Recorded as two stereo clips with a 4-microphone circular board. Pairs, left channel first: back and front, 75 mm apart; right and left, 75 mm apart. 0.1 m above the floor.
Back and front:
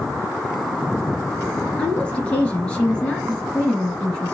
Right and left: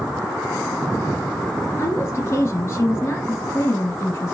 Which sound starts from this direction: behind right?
A woman speaking, at 1.8 s.